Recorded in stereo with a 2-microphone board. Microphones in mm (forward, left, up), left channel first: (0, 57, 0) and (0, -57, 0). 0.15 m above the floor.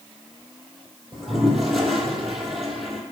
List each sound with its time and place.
1.1 s a toilet flushing: 5° right (ahead or behind), 1.4 m